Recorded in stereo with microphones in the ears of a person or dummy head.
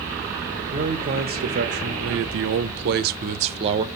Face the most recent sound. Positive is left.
turn(degrees=-25)  # may be behind; listen again after turning